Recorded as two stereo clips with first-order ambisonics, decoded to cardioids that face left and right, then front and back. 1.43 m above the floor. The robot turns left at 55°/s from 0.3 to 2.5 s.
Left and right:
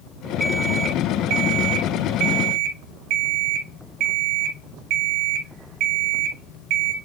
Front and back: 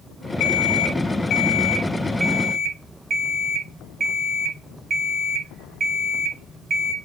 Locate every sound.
0.4 s an alarm clock: straight ahead, 2 m; by 6.9 s 120° right, 2 m